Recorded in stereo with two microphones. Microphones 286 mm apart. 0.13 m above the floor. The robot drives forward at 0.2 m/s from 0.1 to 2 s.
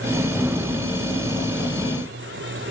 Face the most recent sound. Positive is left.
No sound to turn to.